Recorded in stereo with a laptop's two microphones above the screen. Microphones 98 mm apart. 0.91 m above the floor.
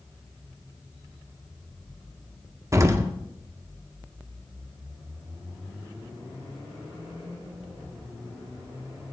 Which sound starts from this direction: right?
An explosion, at 2.7 s.